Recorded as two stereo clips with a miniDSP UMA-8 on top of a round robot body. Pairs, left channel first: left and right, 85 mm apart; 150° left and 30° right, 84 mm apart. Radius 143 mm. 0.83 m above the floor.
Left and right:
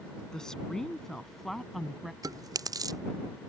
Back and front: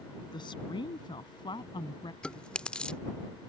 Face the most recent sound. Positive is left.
turn(degrees=-130)